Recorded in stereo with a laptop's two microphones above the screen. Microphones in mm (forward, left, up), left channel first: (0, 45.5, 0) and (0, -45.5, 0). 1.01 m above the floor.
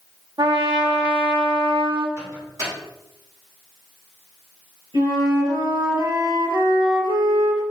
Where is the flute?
65° right (ahead or behind), 3.5 m.